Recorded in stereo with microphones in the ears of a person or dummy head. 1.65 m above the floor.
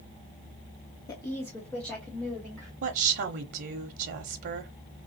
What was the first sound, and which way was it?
A woman speaking, 30° left (ahead or behind).